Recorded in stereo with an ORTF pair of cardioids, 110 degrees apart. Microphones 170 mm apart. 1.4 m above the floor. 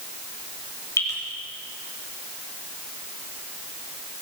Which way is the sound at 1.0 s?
20° left.